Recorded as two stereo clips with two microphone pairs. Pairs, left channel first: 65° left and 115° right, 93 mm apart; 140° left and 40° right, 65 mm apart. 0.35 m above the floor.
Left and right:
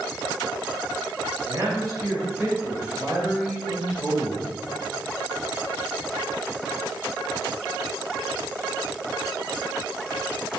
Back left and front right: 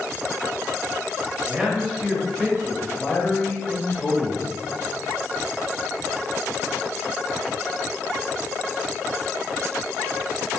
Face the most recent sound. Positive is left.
turn(degrees=140)